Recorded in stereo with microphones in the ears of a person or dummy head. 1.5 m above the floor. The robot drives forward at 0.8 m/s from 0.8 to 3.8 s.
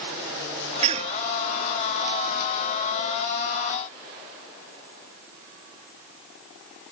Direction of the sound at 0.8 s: 35° right (ahead or behind).